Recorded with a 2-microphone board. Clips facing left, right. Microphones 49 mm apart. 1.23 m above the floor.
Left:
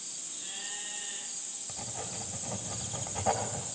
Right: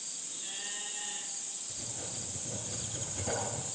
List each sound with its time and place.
1.7 s writing: 60° left (ahead or behind), 1.8 m